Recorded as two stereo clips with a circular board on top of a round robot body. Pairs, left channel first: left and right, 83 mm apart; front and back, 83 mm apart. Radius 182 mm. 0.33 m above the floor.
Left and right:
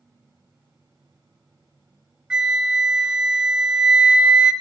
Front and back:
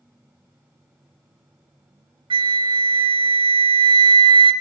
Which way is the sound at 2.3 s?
170° right.